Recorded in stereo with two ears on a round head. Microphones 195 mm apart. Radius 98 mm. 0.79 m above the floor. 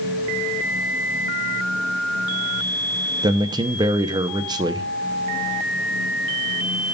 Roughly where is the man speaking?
Centre.